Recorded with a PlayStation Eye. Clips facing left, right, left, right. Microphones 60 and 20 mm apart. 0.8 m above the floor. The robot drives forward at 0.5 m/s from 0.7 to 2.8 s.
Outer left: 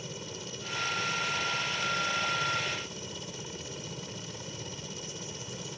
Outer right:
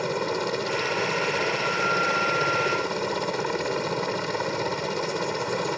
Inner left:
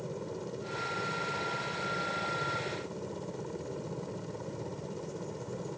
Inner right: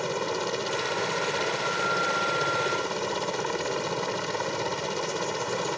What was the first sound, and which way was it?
A helicopter, 65° right (ahead or behind).